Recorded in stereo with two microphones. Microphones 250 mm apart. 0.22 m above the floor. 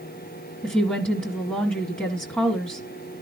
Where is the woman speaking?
5° left (ahead or behind), 1.7 m.